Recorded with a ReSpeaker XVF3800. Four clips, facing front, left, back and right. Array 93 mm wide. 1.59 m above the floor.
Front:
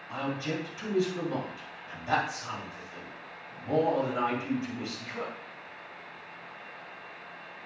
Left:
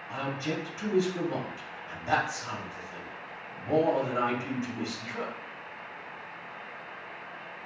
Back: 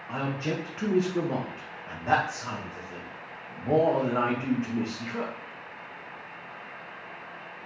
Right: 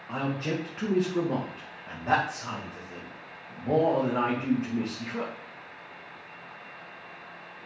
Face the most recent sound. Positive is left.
turn(degrees=-140)